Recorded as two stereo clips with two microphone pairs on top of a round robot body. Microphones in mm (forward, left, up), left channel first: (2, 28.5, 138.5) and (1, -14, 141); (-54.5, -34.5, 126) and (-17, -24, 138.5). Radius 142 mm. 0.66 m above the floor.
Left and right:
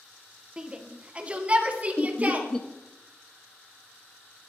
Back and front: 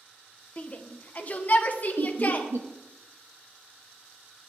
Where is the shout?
160° right, 1.4 m; by 2.5 s 145° right, 2 m.